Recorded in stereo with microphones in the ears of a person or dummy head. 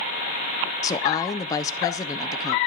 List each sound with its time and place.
0.8 s a woman speaking: 20° left (ahead or behind), 1.0 m